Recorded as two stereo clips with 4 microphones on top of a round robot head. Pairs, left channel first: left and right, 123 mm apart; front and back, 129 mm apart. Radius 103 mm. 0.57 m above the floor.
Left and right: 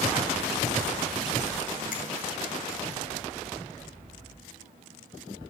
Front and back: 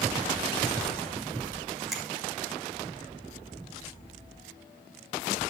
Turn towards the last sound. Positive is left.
turn(degrees=90)